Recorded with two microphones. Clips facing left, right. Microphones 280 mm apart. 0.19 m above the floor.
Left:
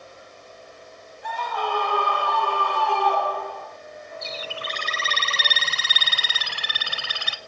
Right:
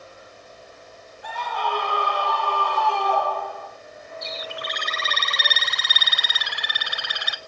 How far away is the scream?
About 7.5 m.